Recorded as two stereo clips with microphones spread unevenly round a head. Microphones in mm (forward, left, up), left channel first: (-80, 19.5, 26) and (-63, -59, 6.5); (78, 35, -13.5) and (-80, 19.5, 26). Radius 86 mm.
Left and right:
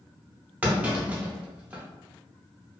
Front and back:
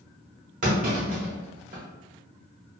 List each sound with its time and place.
0.6 s a clunk: 155° right, 0.8 m